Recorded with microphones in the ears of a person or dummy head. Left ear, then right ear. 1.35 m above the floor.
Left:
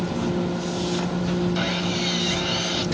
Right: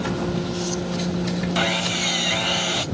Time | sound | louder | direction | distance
1.6 | sawing | right 3 dB | 20° right (ahead or behind) | ?